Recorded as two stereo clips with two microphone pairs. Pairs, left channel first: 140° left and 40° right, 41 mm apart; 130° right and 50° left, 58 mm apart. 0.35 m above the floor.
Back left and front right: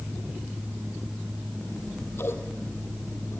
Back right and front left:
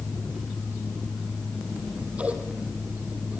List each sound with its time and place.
1.7 s scissors: 115° left, 3.5 m